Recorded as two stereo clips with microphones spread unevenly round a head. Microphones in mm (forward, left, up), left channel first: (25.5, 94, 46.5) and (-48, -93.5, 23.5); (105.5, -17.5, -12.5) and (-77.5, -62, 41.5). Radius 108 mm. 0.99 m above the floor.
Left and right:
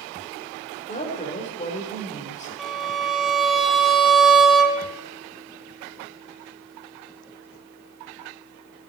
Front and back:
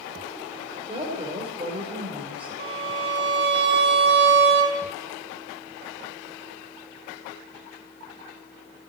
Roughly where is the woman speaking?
Behind left.